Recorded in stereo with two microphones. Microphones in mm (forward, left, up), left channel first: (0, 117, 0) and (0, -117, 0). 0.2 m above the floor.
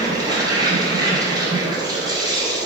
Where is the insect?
15° right (ahead or behind), 1.9 m.